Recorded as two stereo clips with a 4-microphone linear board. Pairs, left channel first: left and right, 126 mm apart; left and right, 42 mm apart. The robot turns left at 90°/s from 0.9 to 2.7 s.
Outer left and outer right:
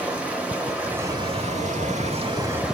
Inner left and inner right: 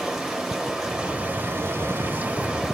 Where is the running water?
10° right, 1.0 m; by 2.8 s 175° right, 1.0 m.